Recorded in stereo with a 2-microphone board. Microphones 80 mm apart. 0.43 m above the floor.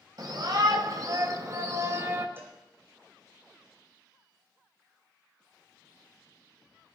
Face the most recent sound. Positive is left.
turn(degrees=-30)  # may be behind; listen again after turning